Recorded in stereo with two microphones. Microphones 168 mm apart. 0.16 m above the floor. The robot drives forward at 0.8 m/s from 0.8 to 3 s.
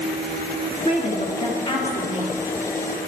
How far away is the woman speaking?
About 2.0 m.